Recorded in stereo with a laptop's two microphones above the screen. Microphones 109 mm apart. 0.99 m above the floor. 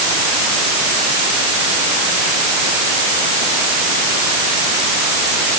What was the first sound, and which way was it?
Only background noise.